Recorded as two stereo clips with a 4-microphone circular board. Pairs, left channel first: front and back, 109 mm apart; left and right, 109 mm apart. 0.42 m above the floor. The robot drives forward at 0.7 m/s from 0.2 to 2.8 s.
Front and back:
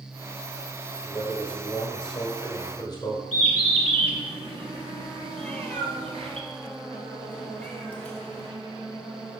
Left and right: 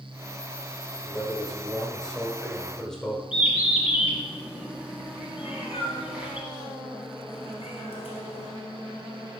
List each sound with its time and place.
1.0 s a man speaking: 5° left, 2 m; by 3.2 s 10° left, 1.1 m
3.3 s a bird: 165° right, 1.5 m
5.4 s a cat meowing: 75° left, 1.5 m